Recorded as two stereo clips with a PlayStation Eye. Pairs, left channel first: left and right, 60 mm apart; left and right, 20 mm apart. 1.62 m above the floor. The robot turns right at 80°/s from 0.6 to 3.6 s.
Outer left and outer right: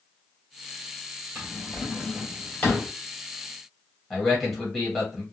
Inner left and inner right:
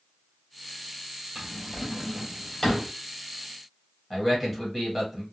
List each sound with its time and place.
1.4 s a drawer: 25° right (ahead or behind), 1.6 m; by 2.9 s 35° left (ahead or behind), 1.6 m
4.1 s a man speaking: centre (ahead or behind), 1.4 m